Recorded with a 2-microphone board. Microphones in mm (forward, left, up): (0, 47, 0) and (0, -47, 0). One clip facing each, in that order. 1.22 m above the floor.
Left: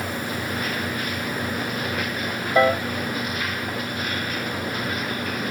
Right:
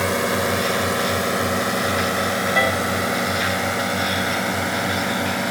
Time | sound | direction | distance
0.0 | a drone | 75° right (ahead or behind) | ?
2.5 | a piano | 20° left (ahead or behind) | ?